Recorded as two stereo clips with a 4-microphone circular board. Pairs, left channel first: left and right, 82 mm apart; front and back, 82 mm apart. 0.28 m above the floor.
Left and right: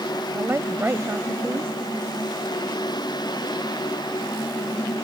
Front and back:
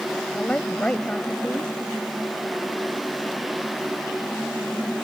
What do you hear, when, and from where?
0.3 s a woman speaking: 65° right